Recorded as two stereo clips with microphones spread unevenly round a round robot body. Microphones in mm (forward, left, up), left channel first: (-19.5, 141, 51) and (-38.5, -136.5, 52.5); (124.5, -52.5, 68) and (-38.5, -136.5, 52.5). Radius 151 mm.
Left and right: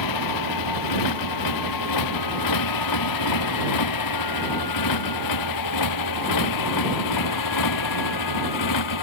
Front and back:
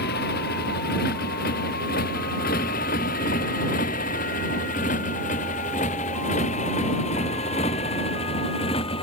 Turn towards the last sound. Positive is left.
turn(degrees=100)